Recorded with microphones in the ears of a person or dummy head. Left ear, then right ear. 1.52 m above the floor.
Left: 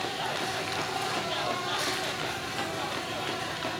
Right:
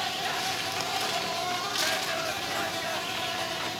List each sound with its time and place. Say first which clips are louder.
0.0 s an insect: right 2 dB; 55° right (ahead or behind), 2 m